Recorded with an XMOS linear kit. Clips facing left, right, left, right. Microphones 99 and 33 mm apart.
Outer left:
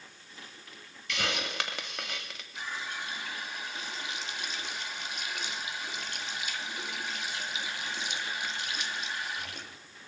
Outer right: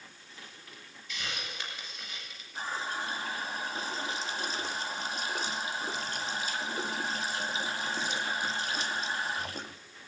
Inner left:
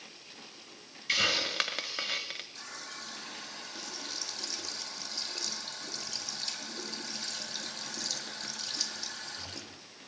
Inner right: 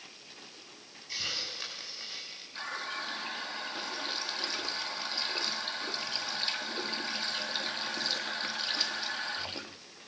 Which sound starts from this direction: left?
A hiss, at 1.1 s.